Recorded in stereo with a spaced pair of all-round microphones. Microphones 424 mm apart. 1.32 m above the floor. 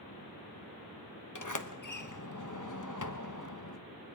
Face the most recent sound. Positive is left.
turn(degrees=45)  # may be behind; listen again after turning